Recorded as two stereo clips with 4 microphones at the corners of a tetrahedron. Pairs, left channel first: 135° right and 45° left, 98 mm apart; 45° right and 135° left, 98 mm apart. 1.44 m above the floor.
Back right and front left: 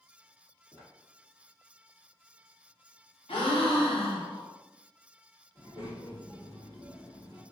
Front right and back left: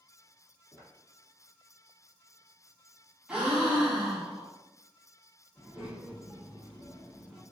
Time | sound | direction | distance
0.7 | footsteps | 170° left | 1.9 m
3.3 | a gasp | 145° right | 0.8 m
5.5 | a child speaking | 140° right | 1.5 m